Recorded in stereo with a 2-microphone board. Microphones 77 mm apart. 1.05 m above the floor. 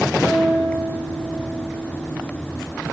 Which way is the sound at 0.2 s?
25° right (ahead or behind).